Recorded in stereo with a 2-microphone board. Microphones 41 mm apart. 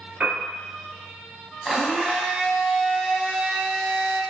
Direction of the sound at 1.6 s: Centre (ahead or behind).